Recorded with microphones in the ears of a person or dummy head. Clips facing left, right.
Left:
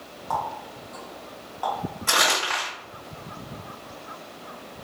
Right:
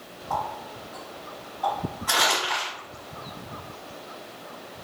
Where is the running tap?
70° left (ahead or behind), 1.2 m.